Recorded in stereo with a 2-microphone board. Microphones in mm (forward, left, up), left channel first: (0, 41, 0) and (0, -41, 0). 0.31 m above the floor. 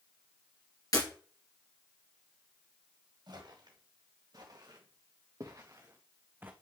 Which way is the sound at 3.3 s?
60° right (ahead or behind).